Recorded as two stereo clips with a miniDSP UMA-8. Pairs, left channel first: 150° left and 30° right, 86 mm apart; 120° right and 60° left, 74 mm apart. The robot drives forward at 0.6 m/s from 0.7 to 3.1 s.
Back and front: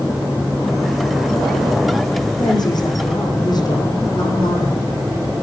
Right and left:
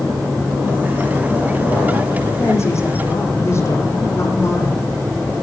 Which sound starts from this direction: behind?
A woman speaking, at 2.4 s.